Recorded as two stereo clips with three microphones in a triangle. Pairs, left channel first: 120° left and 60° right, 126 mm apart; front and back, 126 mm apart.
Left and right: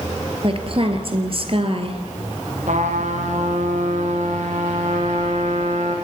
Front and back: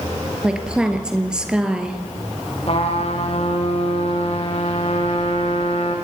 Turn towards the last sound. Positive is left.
turn(degrees=-40)